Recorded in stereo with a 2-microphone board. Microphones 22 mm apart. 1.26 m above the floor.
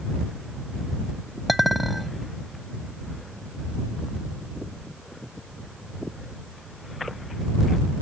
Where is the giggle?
No giggle in this recording.